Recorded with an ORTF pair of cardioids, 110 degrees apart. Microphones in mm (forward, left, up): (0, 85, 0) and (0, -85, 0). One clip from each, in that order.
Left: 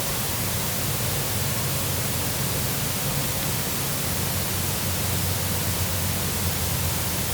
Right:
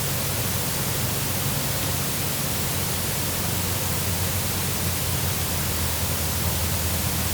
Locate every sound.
Only background noise.